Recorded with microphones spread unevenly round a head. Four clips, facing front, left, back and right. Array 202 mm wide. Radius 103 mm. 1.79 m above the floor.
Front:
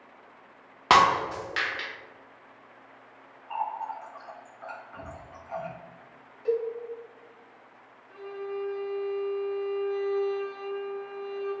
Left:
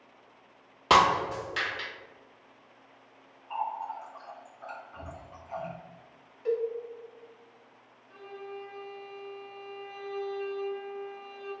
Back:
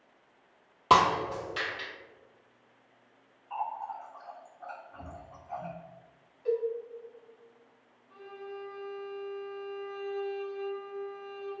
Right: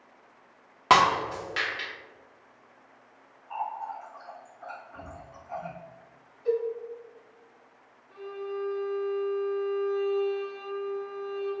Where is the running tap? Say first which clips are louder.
Even, front 3 dB; 5° right, 1.8 m.